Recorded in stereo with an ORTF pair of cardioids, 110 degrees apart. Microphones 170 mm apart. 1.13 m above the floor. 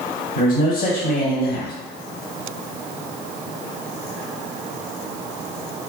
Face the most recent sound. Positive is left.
turn(degrees=60)